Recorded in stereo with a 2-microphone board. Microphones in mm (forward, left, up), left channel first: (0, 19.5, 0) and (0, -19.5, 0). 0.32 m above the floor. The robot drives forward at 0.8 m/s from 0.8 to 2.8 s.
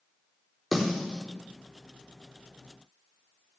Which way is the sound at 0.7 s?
5° right (ahead or behind).